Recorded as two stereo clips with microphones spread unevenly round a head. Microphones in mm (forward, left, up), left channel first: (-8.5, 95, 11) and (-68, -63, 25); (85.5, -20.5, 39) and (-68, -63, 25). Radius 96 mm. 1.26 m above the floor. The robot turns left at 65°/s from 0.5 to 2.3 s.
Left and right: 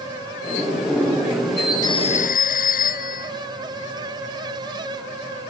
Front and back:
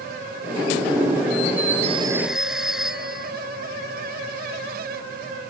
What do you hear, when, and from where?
1.8 s a phone ringing: 140° left; by 3.3 s 105° left